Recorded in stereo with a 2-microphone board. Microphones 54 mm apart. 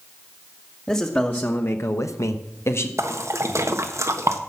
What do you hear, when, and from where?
0.9 s a man speaking: 20° left (ahead or behind), 1.8 m; by 2.9 s 50° left (ahead or behind), 1.7 m
3.0 s a splash: 65° right (ahead or behind), 1.2 m